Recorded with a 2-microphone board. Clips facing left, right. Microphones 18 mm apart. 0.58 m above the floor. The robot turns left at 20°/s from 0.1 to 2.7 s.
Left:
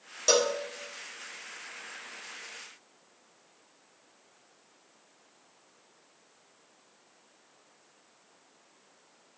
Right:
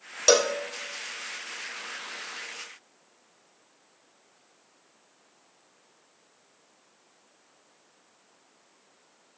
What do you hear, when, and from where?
0.3 s a cowbell: 35° right (ahead or behind), 1.4 m; by 0.6 s 40° right (ahead or behind), 1.4 m